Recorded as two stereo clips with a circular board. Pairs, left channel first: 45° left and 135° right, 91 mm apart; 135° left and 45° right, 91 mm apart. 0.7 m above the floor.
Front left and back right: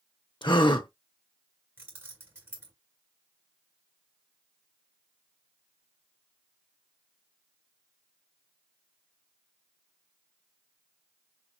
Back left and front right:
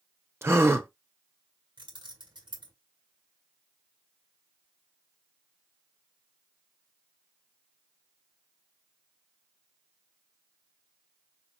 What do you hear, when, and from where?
0.4 s a gasp: 15° left, 0.8 m
1.8 s keys jangling: 75° right, 1.9 m